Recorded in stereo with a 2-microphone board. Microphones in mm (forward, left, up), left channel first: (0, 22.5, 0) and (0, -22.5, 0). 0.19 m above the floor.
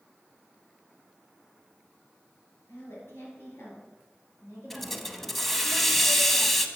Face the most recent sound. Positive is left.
turn(degrees=5)  # may be behind; listen again after turning